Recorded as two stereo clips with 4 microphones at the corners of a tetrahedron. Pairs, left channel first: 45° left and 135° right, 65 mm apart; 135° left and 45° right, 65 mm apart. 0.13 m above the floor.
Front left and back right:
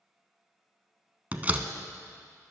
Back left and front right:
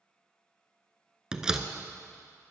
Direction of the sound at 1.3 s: 110° right.